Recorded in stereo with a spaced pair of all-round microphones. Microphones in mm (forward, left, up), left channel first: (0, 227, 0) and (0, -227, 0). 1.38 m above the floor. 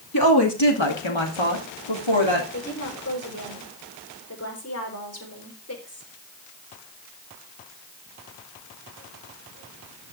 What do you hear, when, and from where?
0.1 s a woman speaking: 50° left (ahead or behind), 2.5 m; by 2.4 s 70° left (ahead or behind), 3.5 m
2.5 s a woman speaking: 30° left (ahead or behind), 3.5 m